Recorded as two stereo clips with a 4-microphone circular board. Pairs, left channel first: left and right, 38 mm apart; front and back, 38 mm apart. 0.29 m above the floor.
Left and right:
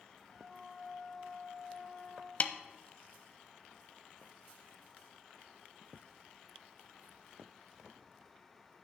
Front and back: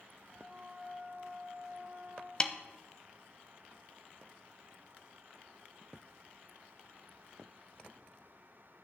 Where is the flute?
150° left, 2.5 m.